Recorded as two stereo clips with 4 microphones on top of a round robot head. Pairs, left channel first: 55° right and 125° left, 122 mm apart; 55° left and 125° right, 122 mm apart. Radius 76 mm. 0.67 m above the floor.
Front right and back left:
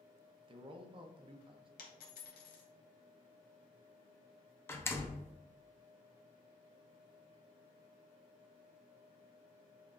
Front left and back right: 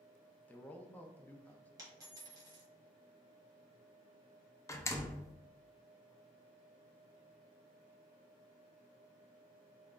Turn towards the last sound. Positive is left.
turn(degrees=5)